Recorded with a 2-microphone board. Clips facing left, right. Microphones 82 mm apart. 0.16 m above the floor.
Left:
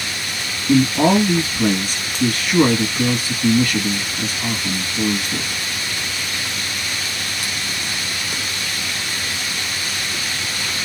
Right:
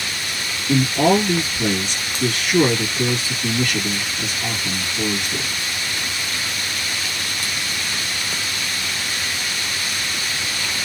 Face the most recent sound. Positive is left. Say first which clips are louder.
# left 2 dB
turn(degrees=40)  # may be behind; listen again after turning